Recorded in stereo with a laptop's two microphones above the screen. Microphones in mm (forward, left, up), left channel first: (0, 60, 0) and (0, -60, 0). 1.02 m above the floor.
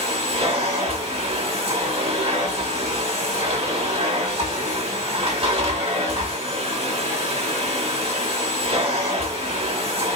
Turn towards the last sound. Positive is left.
turn(degrees=-55)  # may be behind; listen again after turning